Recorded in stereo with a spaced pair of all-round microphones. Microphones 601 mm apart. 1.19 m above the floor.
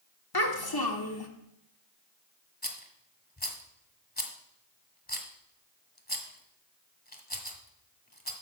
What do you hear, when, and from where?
0.3 s a child speaking: 35° left (ahead or behind), 1.8 m
2.6 s a rattle: 15° left (ahead or behind), 1.5 m